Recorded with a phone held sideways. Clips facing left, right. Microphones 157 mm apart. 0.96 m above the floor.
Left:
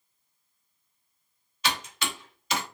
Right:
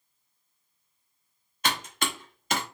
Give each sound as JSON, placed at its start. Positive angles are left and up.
{"t": 1.6, "sound": "typing on a keyboard", "side_deg": -55, "distance_m": 0.9}